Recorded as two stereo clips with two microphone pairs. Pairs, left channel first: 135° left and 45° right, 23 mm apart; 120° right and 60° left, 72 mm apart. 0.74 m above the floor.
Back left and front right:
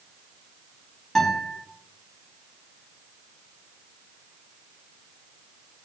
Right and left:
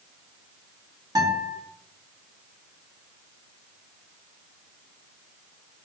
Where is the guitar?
65° left, 1.2 m.